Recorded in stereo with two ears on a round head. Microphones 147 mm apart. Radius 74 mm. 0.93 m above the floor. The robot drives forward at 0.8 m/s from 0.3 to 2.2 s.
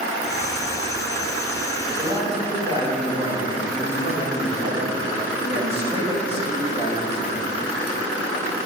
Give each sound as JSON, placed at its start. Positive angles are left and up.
{"t": 1.9, "sound": "a man speaking", "side_deg": -35, "distance_m": 4.0}